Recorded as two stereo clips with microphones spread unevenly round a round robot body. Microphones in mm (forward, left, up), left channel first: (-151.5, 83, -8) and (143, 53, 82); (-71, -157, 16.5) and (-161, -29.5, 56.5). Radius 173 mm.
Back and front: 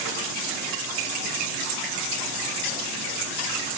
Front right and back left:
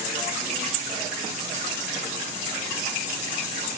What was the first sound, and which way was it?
Only background noise.